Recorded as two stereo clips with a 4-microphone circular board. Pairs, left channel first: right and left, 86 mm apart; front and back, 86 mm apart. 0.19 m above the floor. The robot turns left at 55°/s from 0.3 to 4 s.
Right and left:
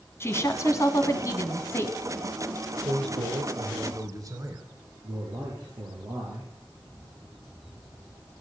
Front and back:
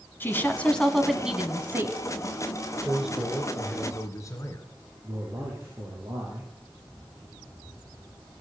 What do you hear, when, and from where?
0.2 s a woman speaking: 50° right, 1.7 m; by 1.9 s 140° right, 1.7 m
2.9 s a man speaking: 110° left, 3 m; by 4.7 s 50° left, 3 m
5.0 s a man speaking: 130° left, 4.5 m